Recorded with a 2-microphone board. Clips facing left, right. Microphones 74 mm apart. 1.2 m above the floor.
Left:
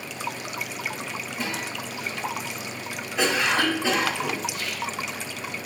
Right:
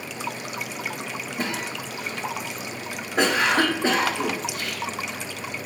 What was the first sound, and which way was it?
A cough, 50° right (ahead or behind).